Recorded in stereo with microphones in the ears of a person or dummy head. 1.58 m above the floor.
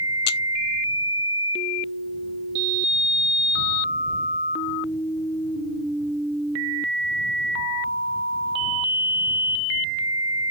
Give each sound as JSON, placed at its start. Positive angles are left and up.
{"t": 0.3, "sound": "a camera shutter", "side_deg": 65}